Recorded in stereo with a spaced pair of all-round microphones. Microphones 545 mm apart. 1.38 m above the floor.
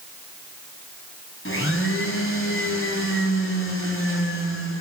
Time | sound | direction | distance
1.4 | a blender | 25° left (ahead or behind) | 3 m